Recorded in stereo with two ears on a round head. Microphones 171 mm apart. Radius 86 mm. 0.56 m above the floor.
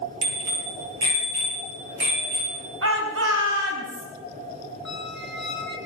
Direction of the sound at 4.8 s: Centre (ahead or behind).